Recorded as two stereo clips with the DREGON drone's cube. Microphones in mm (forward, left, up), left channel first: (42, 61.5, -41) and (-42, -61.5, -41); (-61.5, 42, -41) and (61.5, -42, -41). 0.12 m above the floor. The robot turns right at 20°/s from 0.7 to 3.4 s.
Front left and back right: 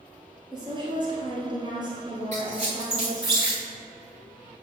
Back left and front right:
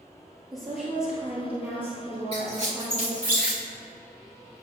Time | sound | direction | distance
0.5 | a woman speaking | 125° right | 1.9 m
2.3 | a squeak | 80° right | 2 m